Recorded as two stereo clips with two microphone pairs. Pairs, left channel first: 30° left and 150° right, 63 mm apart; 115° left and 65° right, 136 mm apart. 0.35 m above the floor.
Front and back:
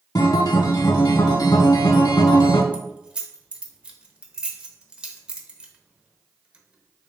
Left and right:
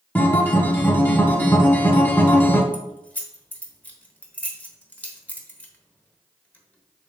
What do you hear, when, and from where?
0.1 s a guitar: 40° left, 0.6 m
2.7 s keys jangling: 175° left, 0.6 m